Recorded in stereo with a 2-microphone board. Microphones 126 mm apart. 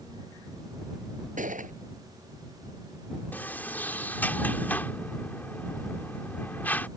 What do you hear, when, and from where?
1.4 s a gunshot: 90° right
3.3 s a sliding door: 15° left (ahead or behind)